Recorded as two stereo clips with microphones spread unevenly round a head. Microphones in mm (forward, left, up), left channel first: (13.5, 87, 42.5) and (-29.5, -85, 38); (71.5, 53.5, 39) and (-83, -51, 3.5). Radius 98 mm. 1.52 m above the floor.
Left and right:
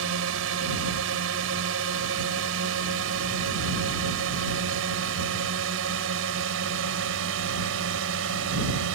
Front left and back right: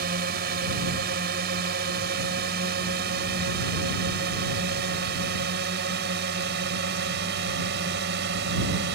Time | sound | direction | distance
0.0 | a drone | 105° right | ?